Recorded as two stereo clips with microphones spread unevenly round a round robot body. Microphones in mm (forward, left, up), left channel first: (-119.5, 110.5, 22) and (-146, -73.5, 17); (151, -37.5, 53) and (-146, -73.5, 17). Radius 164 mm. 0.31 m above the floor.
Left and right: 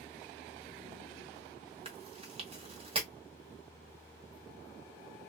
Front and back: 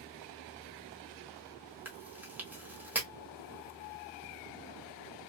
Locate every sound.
1.9 s chewing: 105° right, 1.1 m